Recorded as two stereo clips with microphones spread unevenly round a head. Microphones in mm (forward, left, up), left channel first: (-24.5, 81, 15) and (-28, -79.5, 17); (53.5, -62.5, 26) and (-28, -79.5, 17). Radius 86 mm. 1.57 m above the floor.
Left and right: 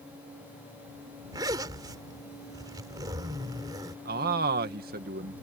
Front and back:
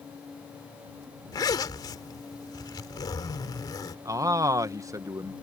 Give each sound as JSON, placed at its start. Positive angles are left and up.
{"t": 1.3, "sound": "a zipper", "azimuth_deg": -20}
{"t": 4.0, "sound": "a man speaking", "azimuth_deg": -120}